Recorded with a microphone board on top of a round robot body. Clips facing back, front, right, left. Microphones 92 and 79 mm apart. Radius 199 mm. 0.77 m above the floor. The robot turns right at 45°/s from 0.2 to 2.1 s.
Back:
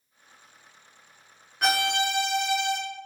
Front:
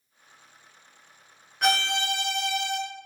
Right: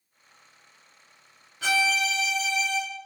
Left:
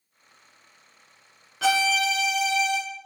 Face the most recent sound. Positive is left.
turn(degrees=115)